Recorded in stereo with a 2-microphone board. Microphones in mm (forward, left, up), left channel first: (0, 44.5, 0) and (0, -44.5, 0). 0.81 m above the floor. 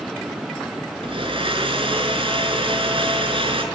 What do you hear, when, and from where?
1.0 s a blender: 85° right, 6 m